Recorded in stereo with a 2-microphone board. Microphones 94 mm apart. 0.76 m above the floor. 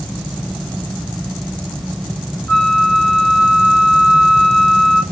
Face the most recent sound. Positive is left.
turn(degrees=15)  # may be behind; listen again after turning